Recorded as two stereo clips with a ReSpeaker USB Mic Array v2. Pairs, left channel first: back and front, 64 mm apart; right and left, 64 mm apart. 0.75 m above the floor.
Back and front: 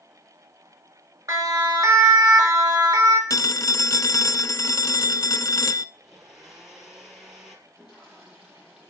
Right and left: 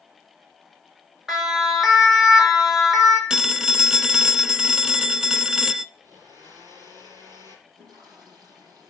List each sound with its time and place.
1.3 s a siren: 5° left, 3.5 m; by 3.2 s straight ahead, 4.5 m
3.3 s a phone ringing: 170° left, 0.7 m
6.0 s a blender: 85° left, 5 m
7.7 s a toilet flushing: 75° left, 7 m